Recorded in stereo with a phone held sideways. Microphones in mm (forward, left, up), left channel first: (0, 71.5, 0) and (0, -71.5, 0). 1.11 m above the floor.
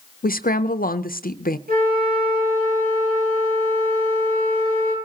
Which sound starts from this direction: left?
A woman speaking, at 0.2 s.